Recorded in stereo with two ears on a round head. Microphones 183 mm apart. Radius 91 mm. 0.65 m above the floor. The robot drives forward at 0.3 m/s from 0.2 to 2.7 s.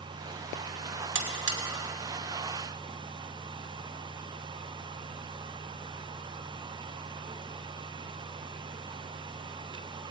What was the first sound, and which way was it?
A buzzer, 60° right (ahead or behind).